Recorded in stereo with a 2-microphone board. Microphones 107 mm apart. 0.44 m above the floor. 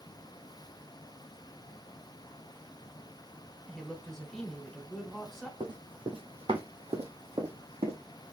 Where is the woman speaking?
5° left (ahead or behind), 1.8 m.